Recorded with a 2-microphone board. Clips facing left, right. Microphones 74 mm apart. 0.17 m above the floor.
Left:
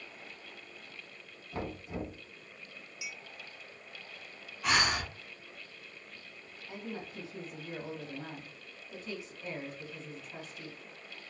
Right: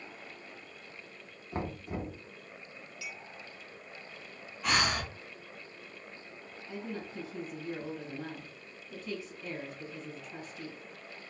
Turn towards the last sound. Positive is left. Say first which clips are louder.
# right 2 dB
turn(degrees=10)  # may be behind; listen again after turning